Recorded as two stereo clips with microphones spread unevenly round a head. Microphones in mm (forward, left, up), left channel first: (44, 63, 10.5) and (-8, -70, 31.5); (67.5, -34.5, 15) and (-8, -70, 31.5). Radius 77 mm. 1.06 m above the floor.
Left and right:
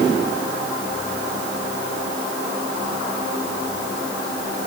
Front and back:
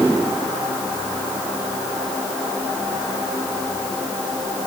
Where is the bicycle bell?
I don't hear a bicycle bell.